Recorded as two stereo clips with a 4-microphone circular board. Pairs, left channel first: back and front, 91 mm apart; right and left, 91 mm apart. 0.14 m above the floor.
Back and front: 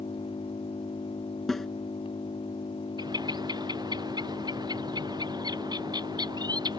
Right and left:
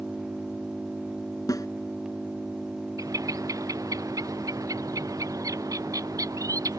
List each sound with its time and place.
0.0 s an engine running: 175° left
1.5 s a snare drum: 95° right
3.0 s a bird: 40° left